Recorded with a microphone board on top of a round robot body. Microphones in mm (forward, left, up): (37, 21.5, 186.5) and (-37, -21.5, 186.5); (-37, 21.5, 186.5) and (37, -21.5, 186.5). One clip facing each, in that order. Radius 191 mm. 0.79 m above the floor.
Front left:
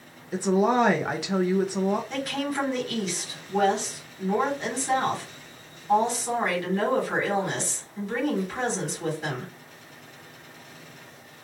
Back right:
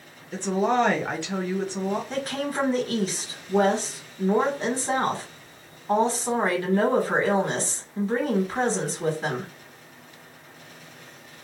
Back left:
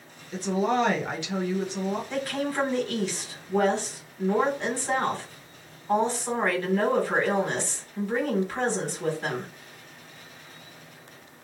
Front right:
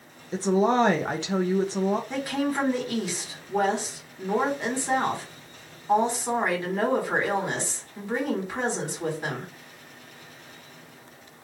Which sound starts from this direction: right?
A woman speaking, at 2.1 s.